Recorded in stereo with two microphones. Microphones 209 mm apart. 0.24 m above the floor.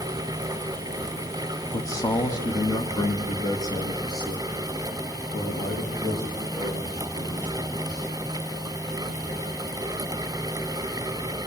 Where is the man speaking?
15° left (ahead or behind), 1.2 m; by 8.1 s 20° left (ahead or behind), 10 m.